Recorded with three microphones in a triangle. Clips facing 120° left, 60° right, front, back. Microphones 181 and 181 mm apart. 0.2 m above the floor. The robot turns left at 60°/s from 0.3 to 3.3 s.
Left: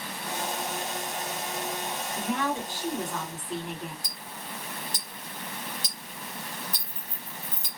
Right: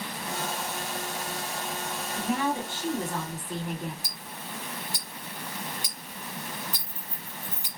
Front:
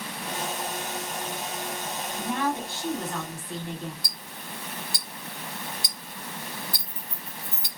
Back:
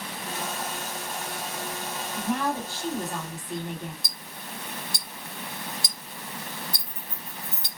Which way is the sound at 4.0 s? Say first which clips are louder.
Even, even; 130° right.